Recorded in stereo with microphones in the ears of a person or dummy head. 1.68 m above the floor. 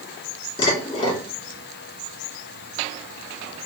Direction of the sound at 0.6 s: 30° left (ahead or behind).